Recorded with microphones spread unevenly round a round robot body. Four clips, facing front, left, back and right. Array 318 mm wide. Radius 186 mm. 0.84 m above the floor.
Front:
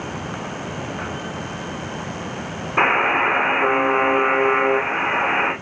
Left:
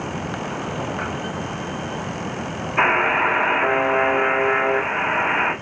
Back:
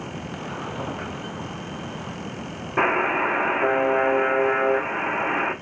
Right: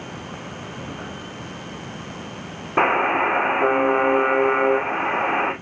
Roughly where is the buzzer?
Right.